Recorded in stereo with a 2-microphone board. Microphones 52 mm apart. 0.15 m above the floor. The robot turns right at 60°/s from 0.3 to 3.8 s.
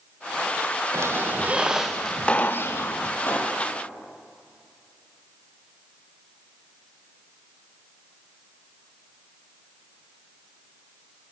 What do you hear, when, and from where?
0.9 s a squeak: 60° right, 2.5 m; by 3.1 s 70° left, 2.5 m
3.2 s a pop: 50° left (ahead or behind), 5 m; by 3.6 s 25° left (ahead or behind), 5 m